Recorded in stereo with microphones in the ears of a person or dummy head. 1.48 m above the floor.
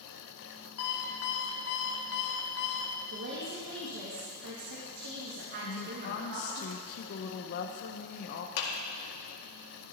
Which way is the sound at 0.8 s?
60° left (ahead or behind).